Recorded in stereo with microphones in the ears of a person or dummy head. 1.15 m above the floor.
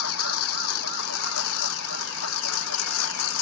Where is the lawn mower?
85° left.